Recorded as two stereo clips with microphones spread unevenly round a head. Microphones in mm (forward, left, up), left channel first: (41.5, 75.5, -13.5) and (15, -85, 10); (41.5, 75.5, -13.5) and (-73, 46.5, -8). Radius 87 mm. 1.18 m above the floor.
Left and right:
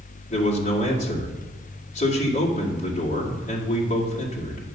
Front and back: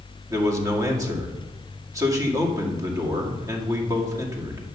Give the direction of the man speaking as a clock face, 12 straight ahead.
8 o'clock.